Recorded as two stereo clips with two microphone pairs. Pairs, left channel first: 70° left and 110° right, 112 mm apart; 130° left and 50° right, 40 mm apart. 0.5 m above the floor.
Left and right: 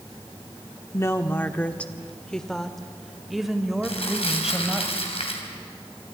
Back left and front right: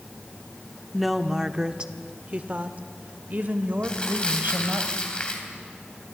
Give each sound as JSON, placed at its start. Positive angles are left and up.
{"t": 0.9, "sound": "a woman speaking", "azimuth_deg": 40, "distance_m": 0.8}
{"t": 3.8, "sound": "crumpling", "azimuth_deg": 70, "distance_m": 3.0}